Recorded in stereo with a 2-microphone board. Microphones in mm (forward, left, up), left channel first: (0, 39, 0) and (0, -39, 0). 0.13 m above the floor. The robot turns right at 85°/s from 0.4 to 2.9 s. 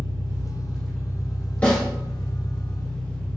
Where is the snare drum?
15° left (ahead or behind), 1.9 m; by 1.8 s 5° left (ahead or behind), 1.9 m.